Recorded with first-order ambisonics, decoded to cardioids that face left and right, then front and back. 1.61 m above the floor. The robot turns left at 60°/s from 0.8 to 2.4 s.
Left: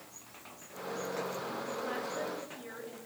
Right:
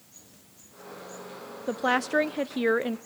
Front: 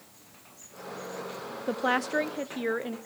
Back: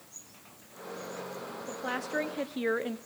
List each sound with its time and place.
1.7 s a woman speaking: 50° right, 0.6 m; by 3.0 s 90° right, 0.6 m